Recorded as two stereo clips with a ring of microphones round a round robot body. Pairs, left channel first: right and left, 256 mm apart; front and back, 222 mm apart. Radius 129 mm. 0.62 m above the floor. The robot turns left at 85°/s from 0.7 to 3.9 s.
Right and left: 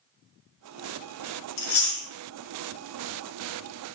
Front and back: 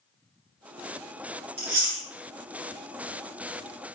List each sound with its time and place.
1.6 s chewing: 110° right, 1.2 m; by 2.0 s 150° right, 1.2 m